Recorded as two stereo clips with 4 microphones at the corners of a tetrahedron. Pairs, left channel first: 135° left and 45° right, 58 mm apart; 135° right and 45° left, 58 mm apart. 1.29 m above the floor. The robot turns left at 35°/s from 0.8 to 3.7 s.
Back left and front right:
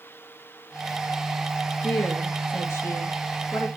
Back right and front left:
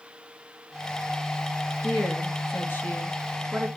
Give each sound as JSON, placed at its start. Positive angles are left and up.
{"t": 1.8, "sound": "a woman speaking", "azimuth_deg": -155, "distance_m": 2.0}